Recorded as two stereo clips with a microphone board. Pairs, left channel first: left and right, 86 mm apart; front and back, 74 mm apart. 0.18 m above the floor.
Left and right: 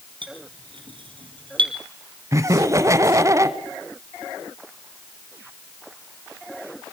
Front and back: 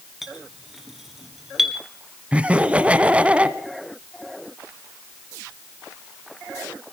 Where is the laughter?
115° right, 1.3 m.